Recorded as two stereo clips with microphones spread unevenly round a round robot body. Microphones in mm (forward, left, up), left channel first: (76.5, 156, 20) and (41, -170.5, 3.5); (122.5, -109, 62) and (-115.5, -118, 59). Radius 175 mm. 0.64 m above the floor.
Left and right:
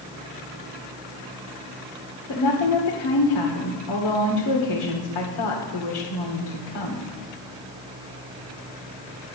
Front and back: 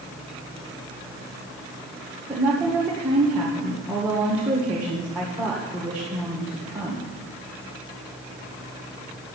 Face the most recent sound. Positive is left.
turn(degrees=100)